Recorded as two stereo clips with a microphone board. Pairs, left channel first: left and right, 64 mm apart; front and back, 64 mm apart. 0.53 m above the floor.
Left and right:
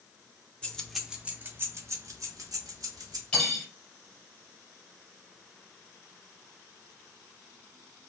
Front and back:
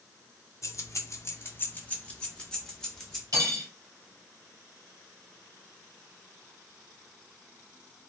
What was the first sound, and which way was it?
Keys jangling, 20° left.